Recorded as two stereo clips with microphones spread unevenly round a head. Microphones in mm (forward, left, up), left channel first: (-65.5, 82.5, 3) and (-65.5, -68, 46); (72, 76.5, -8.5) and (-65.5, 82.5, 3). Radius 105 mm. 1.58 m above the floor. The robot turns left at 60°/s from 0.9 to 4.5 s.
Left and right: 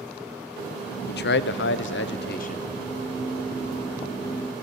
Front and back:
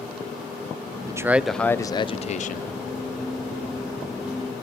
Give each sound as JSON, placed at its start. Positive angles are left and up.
{"t": 1.1, "sound": "a man speaking", "azimuth_deg": 115, "distance_m": 0.6}